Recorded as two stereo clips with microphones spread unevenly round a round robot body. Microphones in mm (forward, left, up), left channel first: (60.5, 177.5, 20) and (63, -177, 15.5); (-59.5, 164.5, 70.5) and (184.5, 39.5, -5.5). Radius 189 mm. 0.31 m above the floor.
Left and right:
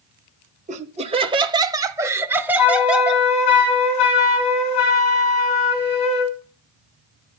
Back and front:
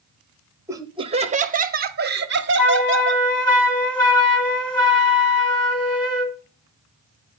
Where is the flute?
70° left, 3.5 m.